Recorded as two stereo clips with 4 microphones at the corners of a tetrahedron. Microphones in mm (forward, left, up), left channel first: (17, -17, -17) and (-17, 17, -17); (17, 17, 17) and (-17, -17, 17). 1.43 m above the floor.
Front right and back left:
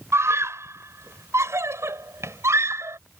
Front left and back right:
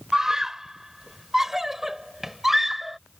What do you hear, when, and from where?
0.1 s a scream: 145° left; by 3.0 s 140° left